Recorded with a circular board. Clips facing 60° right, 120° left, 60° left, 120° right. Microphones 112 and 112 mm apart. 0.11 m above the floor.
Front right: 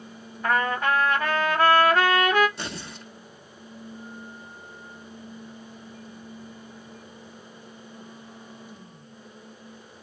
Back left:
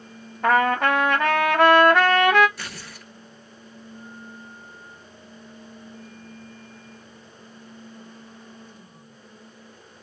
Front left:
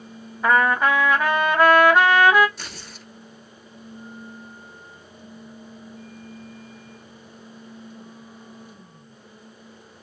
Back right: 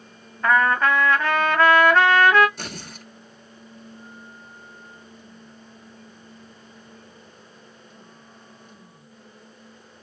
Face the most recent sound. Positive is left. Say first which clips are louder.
# front right 3 dB, back right 4 dB
turn(degrees=-120)